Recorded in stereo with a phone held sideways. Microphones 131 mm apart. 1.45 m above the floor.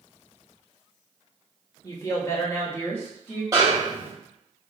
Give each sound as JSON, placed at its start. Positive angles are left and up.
{"t": 1.8, "sound": "a woman speaking", "side_deg": 30, "distance_m": 0.9}
{"t": 3.5, "sound": "a snare drum", "side_deg": -30, "distance_m": 1.4}